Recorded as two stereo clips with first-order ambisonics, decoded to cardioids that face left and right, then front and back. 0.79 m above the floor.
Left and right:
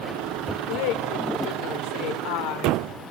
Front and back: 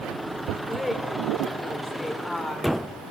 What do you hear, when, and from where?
0.7 s a woman speaking: 85° left, 3.5 m